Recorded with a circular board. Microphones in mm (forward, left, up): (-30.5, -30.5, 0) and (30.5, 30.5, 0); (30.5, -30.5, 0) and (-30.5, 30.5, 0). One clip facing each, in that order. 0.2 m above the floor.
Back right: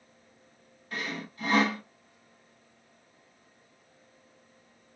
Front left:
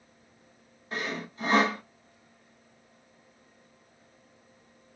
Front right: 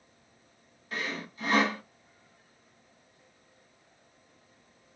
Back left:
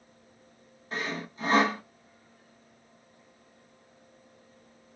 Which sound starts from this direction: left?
Sawing, at 0.9 s.